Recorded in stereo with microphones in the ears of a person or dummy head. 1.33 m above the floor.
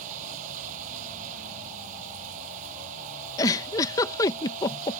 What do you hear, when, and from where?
0.0 s running water: 50° right (ahead or behind)
3.4 s a giggle: 20° left (ahead or behind)